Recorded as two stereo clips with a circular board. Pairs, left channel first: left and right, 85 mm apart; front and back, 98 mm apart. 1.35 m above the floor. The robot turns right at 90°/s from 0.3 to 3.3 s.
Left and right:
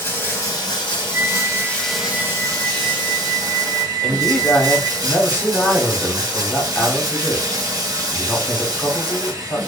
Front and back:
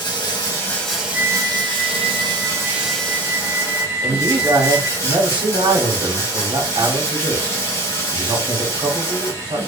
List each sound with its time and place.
0.0 s running water: 35° left, 1.0 m; by 9.7 s 55° right, 1.0 m
1.1 s a flute: 155° right, 1.4 m; by 5.0 s 40° left, 1.4 m
4.0 s a man speaking: 155° left, 0.9 m